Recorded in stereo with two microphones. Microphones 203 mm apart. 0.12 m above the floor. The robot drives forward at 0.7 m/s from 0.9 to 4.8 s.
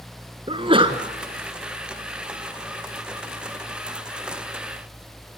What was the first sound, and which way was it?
A sneeze, 30° right (ahead or behind).